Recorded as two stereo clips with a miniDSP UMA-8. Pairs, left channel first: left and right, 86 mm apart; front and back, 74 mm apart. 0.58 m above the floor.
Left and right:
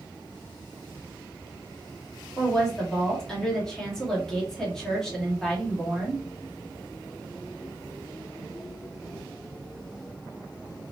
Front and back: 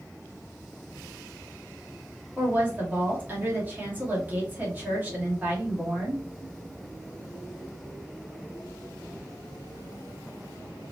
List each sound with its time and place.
2.4 s a woman speaking: 165° left, 1.2 m